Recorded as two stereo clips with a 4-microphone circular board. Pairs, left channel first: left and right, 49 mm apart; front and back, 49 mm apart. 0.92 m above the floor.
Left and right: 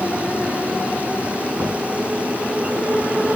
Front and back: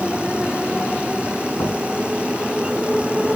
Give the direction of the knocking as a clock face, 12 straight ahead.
1 o'clock.